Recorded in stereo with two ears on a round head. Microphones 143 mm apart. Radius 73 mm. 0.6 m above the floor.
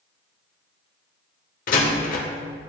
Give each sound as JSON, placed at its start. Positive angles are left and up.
{"t": 1.7, "sound": "a door slam", "side_deg": 50, "distance_m": 1.3}